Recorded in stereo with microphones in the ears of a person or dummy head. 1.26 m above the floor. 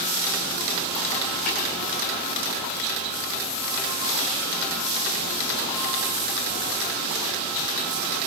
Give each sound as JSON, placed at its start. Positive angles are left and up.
{"t": 1.5, "sound": "tapping", "side_deg": 40, "distance_m": 4.0}